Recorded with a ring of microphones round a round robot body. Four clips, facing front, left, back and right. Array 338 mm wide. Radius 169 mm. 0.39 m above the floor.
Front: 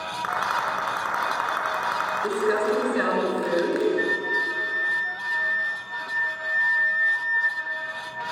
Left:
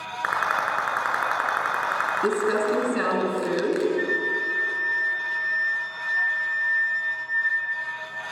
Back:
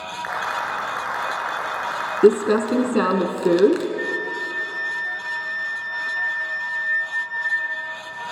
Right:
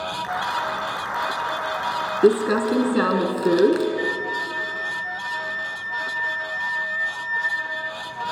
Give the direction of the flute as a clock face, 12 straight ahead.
12 o'clock.